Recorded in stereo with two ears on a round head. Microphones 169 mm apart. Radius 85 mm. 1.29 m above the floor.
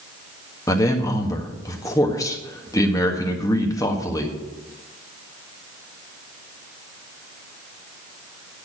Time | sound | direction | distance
0.7 | a man speaking | 20° left (ahead or behind) | 1.5 m